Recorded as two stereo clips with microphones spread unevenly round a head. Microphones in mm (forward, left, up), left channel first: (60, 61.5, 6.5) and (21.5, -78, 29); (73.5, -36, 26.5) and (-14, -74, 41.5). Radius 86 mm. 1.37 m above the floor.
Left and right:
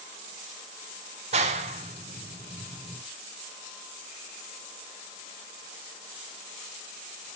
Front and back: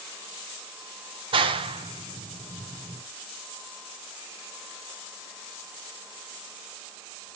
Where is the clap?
150° right, 0.6 m.